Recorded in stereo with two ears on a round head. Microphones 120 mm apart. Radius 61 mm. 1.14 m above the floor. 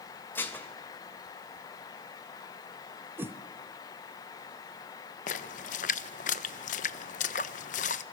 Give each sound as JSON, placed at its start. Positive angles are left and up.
{"t": 0.3, "sound": "dishes clattering", "side_deg": 15, "distance_m": 3.0}
{"t": 3.2, "sound": "a whoosh", "side_deg": -15, "distance_m": 1.4}
{"t": 5.3, "sound": "a splash", "side_deg": 55, "distance_m": 1.0}